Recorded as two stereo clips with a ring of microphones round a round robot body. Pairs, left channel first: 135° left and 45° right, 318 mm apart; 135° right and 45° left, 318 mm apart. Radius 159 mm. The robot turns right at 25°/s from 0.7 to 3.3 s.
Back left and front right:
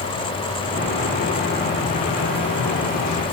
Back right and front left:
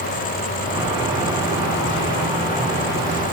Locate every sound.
Only background noise.